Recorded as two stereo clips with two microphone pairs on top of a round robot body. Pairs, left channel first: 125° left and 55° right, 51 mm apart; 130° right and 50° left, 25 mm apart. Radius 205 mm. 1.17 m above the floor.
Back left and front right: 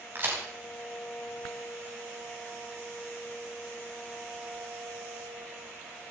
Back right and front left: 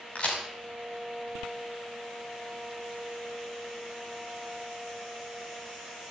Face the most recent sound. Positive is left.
turn(degrees=-100)